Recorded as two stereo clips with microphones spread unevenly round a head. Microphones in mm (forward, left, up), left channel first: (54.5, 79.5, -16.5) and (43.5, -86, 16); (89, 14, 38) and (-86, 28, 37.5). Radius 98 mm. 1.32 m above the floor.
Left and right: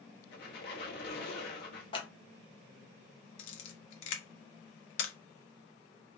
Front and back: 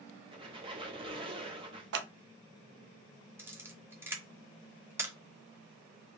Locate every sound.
0.3 s a squeak: 120° left, 0.9 m
1.9 s scissors: 155° left, 0.6 m
3.4 s a camera shutter: 100° left, 0.9 m